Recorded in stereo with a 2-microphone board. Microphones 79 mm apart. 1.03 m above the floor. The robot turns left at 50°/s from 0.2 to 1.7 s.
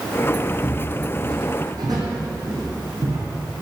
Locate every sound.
0.6 s footsteps: 10° right (ahead or behind), 1.7 m; by 3.2 s 45° right (ahead or behind), 3.5 m